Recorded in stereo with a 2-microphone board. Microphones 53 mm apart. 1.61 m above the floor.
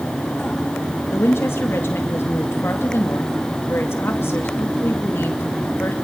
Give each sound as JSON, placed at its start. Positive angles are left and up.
{"t": 1.1, "sound": "a woman speaking", "side_deg": 55, "distance_m": 2.5}